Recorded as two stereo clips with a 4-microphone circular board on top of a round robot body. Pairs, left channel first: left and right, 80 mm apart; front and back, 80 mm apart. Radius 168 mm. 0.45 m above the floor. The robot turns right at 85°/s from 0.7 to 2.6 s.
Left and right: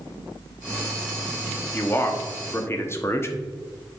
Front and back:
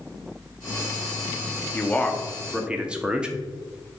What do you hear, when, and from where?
1.7 s a man speaking: 40° left, 1.4 m; by 3.4 s 110° left, 1.4 m